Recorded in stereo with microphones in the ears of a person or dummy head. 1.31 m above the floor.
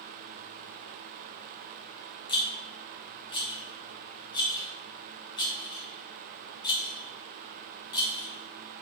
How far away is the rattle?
About 1.1 m.